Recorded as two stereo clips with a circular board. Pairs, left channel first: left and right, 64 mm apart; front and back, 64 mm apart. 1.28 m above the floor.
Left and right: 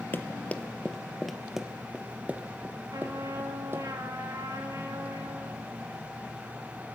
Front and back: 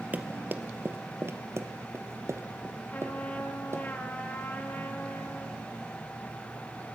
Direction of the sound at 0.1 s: 130° left.